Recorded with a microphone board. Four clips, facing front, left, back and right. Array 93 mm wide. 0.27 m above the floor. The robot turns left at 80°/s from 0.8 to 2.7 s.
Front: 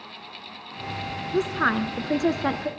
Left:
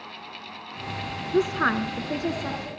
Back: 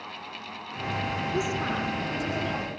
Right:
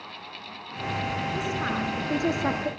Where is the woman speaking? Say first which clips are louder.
Left 6 dB, front 9 dB; 65° left, 2.5 m; by 2.7 s 45° right, 2.5 m.